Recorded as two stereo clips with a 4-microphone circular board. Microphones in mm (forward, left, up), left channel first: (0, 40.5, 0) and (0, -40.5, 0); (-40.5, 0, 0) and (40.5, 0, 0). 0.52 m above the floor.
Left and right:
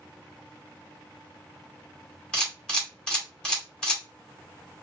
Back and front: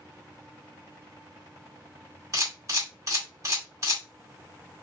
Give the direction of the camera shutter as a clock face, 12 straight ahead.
12 o'clock.